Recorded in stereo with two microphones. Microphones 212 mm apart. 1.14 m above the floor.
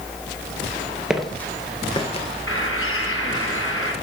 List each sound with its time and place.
1.1 s footsteps: 5° right (ahead or behind), 1.1 m; by 2.3 s 30° left (ahead or behind), 1.4 m
2.5 s a bird: 80° left, 6.5 m